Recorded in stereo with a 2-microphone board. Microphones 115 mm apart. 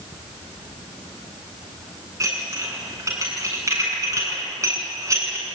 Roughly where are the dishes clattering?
Right.